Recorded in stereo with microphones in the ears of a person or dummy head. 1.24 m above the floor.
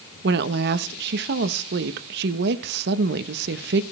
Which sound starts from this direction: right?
A woman speaking, at 0.2 s.